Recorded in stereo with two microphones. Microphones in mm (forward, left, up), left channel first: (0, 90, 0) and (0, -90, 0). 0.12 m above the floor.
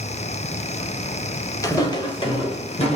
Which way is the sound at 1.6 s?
20° left (ahead or behind).